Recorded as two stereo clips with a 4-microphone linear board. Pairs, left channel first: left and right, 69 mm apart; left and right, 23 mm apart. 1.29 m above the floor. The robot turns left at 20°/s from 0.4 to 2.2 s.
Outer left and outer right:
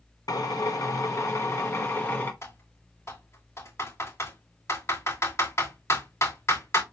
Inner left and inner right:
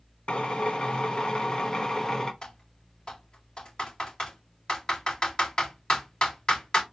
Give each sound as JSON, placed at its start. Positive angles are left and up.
{"t": 0.3, "sound": "a drill", "azimuth_deg": 70, "distance_m": 0.9}
{"t": 2.4, "sound": "typing on a keyboard", "side_deg": 40, "distance_m": 3.5}